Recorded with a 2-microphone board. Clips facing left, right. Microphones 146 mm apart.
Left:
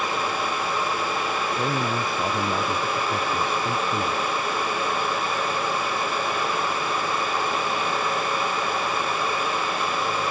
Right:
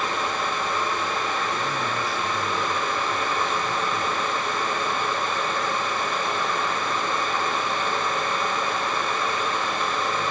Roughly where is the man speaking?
Left.